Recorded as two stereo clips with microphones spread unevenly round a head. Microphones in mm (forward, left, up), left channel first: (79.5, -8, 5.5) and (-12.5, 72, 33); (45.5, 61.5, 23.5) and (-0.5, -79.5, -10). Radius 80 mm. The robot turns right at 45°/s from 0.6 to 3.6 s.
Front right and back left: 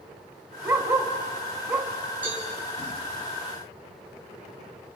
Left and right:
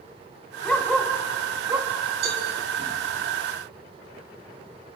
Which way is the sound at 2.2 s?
145° right.